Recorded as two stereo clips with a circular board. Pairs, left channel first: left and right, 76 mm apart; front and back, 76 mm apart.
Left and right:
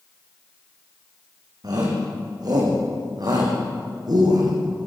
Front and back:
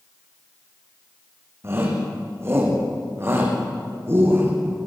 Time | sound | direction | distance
1.6 | a shout | 125° right | 9 m